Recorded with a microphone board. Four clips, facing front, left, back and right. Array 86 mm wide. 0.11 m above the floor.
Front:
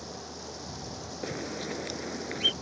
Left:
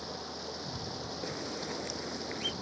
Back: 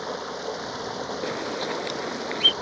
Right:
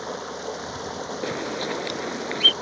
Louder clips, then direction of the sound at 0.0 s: Right 10 dB, back 11 dB; 140° right.